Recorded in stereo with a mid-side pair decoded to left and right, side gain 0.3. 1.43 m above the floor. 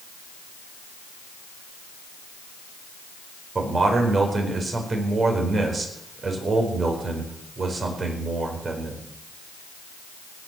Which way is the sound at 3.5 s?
55° right.